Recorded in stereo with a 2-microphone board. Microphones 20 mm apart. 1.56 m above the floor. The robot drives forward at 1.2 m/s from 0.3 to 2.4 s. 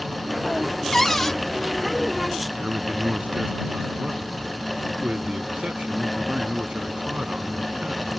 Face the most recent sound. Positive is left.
turn(degrees=-70)  # may be behind; listen again after turning